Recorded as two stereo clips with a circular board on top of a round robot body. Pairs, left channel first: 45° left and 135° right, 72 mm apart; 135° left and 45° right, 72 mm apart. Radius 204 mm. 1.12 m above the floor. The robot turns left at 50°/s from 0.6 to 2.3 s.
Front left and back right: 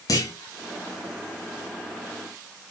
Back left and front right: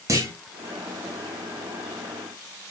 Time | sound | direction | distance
0.1 | a clunk | 5° left | 1.6 m